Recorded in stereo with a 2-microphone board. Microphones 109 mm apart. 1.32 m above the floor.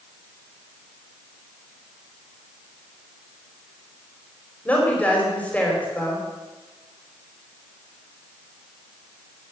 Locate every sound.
4.7 s a woman speaking: 15° left (ahead or behind), 5 m